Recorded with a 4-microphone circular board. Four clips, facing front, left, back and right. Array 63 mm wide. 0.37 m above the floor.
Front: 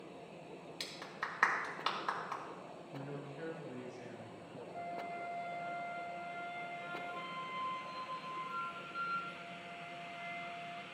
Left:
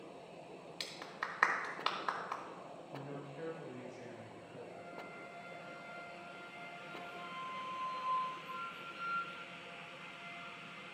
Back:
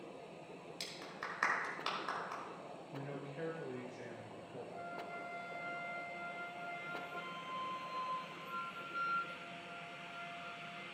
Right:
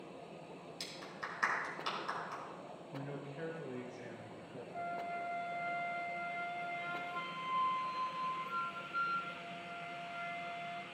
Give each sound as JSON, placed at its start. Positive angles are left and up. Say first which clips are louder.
{"t": 0.8, "sound": "a clap", "louder": "left 3 dB, front 4 dB", "azimuth_deg": 70, "distance_m": 1.5}
{"t": 2.9, "sound": "a man speaking", "louder": "right 2 dB, even", "azimuth_deg": -160, "distance_m": 1.2}
{"t": 4.7, "sound": "a flute", "louder": "right 8 dB, front 5 dB", "azimuth_deg": -80, "distance_m": 0.8}